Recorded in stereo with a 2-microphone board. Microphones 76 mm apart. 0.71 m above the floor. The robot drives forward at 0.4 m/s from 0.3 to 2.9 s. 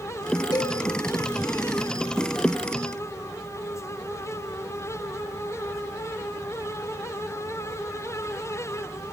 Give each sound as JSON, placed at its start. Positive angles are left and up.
{"t": 0.5, "sound": "a cowbell", "side_deg": 60, "distance_m": 4.0}